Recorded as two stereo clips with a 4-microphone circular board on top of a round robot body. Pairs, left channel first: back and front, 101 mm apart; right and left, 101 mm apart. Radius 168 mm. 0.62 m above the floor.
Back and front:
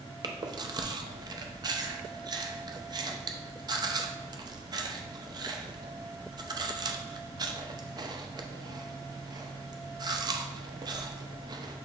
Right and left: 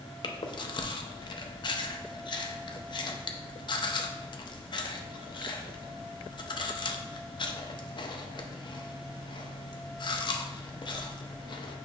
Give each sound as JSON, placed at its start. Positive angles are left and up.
{"t": 0.2, "sound": "chewing", "azimuth_deg": -50, "distance_m": 0.5}